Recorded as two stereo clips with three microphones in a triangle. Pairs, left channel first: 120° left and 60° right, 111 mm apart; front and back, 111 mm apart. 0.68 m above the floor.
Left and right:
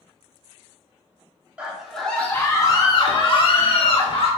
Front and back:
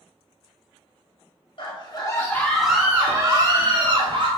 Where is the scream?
20° left, 0.7 m; by 4.3 s 150° left, 1.0 m.